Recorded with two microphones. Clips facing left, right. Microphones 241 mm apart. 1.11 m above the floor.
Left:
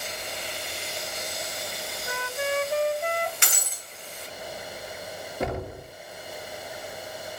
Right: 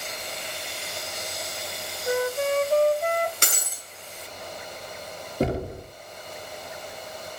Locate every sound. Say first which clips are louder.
2.1 s a flute: right 7 dB; 45° right (ahead or behind), 0.8 m
3.4 s breaking glass: right 2 dB; 45° right (ahead or behind), 6 m
5.4 s knocking: right 5 dB; 35° right (ahead or behind), 3 m